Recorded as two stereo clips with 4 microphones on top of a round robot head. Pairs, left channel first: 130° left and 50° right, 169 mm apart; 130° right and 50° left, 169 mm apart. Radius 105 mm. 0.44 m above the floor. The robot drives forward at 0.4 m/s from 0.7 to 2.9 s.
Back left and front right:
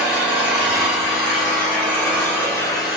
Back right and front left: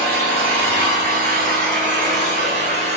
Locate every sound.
0.0 s an engine running: 35° left, 1.6 m; by 3.0 s 75° left, 1.2 m